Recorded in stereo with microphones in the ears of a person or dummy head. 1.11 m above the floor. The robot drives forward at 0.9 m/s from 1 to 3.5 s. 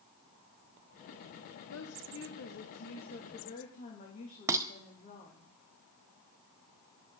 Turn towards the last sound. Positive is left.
turn(degrees=-15)  # may be behind; listen again after turning